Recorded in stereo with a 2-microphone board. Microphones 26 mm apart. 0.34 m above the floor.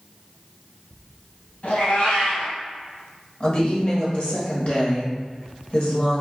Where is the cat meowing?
60° left (ahead or behind), 1.2 m.